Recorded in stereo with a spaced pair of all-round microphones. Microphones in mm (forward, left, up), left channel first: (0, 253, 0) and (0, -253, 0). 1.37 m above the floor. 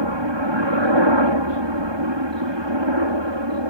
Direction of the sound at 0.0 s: 60° right (ahead or behind).